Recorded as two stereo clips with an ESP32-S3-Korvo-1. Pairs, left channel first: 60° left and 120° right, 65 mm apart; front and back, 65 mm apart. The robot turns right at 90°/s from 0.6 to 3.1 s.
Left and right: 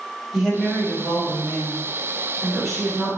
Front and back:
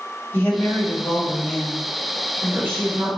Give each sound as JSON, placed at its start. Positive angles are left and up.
{"t": 0.3, "sound": "a woman speaking", "azimuth_deg": -35, "distance_m": 1.4}